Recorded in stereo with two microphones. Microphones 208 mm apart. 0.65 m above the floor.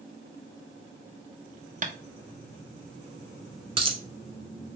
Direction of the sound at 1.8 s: 40° right (ahead or behind).